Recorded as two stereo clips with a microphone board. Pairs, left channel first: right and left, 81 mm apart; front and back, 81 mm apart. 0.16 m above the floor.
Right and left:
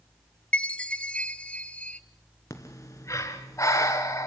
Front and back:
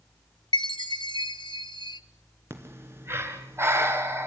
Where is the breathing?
130° right, 2.5 m.